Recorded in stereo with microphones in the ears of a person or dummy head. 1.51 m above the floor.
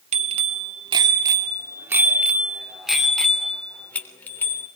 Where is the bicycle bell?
35° right (ahead or behind), 2.5 m; by 4.7 s 15° left (ahead or behind), 3.5 m.